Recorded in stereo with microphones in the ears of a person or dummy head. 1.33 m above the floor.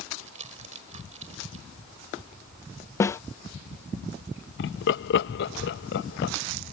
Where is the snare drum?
15° left (ahead or behind).